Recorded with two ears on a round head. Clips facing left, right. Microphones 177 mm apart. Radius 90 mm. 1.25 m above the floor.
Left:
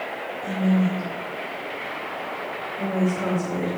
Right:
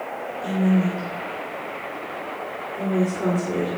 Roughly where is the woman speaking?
Right.